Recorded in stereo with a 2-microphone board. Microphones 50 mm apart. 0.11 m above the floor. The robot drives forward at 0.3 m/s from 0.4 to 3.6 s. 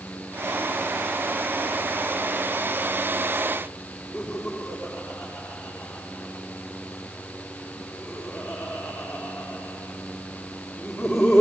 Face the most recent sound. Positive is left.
turn(degrees=0)  # may be behind; listen again after turning